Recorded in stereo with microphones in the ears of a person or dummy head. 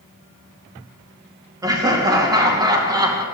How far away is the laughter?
About 3 m.